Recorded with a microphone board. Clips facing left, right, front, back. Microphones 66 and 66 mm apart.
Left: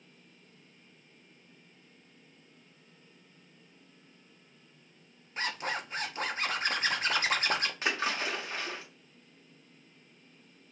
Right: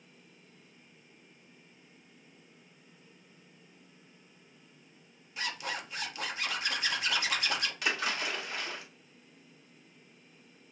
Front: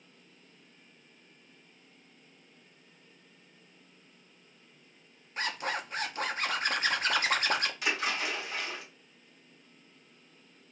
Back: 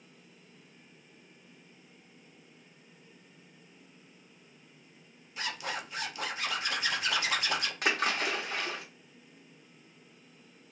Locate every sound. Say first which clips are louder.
5.4 s a zipper: left 3 dB, front 3 dB; 40° left, 0.6 m
7.8 s a splash: left 1 dB, back 2 dB; 145° left, 1.2 m